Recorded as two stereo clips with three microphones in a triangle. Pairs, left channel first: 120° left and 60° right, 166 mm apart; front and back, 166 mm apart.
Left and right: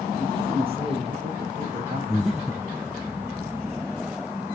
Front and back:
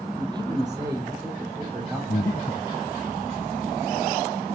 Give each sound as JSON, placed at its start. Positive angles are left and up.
{"t": 0.2, "sound": "a man speaking", "azimuth_deg": -120, "distance_m": 4.5}
{"t": 2.1, "sound": "breathing", "azimuth_deg": 30, "distance_m": 0.9}